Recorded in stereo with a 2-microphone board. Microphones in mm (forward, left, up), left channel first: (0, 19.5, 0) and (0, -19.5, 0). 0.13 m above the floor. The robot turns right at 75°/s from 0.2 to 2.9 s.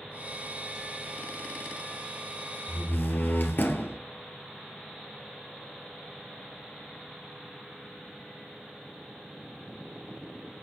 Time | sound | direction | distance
2.7 | a door slam | 60° left (ahead or behind) | 1.8 m